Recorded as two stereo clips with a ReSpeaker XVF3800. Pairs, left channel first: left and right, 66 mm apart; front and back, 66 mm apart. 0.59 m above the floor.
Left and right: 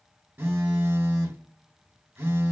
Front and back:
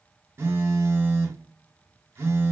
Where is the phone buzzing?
135° right, 0.7 m.